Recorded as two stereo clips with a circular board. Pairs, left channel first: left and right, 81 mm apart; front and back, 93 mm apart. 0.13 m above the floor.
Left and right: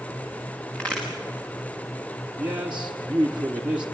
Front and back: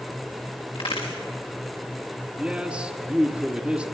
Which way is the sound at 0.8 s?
15° left.